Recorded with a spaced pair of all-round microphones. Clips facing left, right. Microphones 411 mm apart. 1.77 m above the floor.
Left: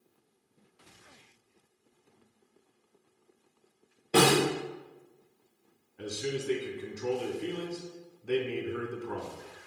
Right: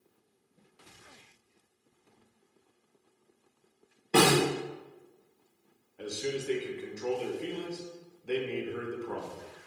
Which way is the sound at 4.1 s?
5° right (ahead or behind).